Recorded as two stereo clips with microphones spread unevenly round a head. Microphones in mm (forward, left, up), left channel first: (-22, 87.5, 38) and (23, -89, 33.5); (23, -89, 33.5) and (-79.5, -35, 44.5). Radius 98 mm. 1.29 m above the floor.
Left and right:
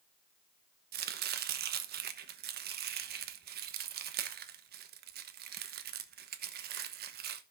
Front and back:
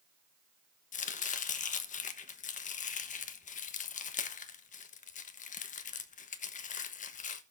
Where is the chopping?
35° right, 1.1 m.